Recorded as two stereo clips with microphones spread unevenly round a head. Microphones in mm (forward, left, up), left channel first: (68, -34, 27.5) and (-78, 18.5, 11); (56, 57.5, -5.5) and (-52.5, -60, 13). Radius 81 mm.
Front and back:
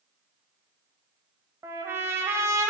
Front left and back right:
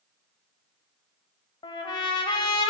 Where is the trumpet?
90° left, 0.8 m.